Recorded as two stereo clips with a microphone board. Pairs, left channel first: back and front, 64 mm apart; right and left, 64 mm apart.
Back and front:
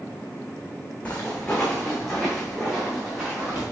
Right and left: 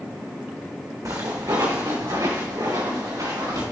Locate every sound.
1.1 s footsteps: 110° left, 1.9 m; by 3.6 s 85° left, 4 m